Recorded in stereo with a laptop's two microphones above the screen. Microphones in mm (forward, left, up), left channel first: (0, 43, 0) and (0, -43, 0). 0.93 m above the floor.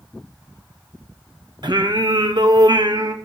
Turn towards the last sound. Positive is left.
turn(degrees=-55)  # may be behind; listen again after turning